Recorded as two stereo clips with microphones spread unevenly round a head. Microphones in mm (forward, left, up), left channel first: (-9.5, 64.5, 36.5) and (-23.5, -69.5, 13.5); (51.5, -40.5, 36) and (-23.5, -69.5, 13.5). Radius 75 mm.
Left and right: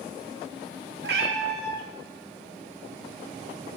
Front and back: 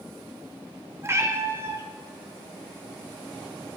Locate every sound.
1.0 s a cat meowing: 95° right, 1.0 m